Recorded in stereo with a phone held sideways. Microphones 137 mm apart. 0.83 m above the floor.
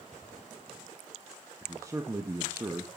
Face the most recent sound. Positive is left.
turn(degrees=-20)  # may be behind; listen again after turning